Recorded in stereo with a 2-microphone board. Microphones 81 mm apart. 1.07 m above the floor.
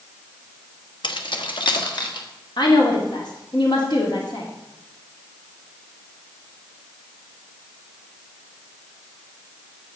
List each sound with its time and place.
1.0 s keys jangling: 80° left, 1.1 m; by 2.3 s 75° left (ahead or behind), 2 m
2.6 s a woman speaking: 70° left (ahead or behind), 2.5 m